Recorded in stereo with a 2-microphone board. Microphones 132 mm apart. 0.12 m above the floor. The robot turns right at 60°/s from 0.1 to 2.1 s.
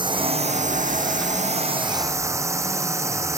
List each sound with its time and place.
0.0 s a drone: 145° right; by 3.4 s 25° right